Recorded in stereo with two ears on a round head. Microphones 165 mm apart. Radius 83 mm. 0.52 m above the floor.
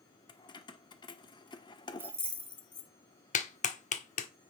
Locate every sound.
0.3 s keys jangling: 25° left (ahead or behind), 0.9 m
2.0 s keys jangling: 10° right (ahead or behind), 0.6 m
3.3 s a clap: 40° left (ahead or behind), 1.2 m